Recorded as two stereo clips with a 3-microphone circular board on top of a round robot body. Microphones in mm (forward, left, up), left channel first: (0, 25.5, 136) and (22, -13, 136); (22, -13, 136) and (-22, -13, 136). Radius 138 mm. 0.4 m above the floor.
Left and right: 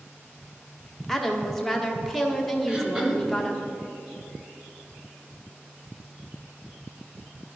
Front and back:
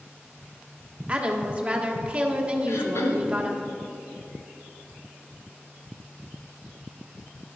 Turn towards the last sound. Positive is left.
turn(degrees=10)